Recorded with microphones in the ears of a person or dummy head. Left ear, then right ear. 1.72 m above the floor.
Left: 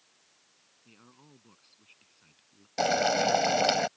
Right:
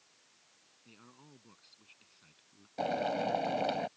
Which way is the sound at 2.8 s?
70° left (ahead or behind).